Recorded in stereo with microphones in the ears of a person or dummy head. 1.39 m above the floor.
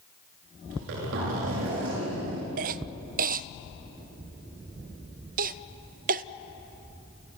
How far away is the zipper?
About 7 m.